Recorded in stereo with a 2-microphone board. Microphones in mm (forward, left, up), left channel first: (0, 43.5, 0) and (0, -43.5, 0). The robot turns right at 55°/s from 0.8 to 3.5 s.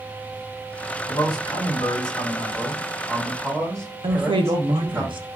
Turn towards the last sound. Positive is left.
turn(degrees=-75)  # may be behind; listen again after turning